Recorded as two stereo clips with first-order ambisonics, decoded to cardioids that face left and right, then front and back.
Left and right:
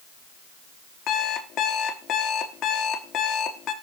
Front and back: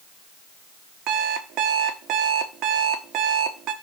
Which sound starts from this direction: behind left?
An alarm clock, at 1.1 s.